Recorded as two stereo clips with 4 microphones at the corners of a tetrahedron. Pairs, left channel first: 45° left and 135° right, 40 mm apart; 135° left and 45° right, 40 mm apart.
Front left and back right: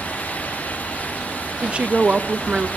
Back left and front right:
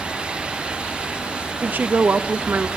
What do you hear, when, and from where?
1.6 s a woman speaking: 70° right, 1.0 m